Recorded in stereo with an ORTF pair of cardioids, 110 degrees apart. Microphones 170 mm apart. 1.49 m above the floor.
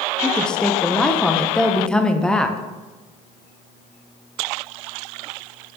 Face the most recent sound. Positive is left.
turn(degrees=5)